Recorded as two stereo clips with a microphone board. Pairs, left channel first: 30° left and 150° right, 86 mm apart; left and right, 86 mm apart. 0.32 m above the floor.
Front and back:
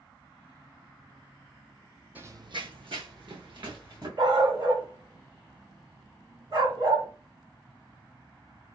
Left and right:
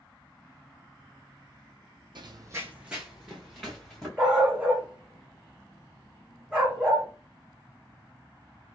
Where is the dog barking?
165° right, 1.3 m.